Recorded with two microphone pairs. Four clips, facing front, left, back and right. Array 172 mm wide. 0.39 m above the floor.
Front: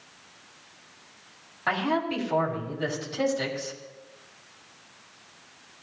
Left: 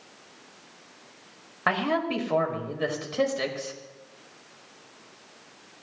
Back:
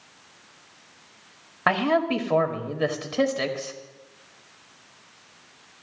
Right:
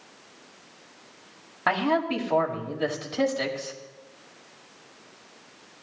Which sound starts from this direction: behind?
A man speaking, at 1.7 s.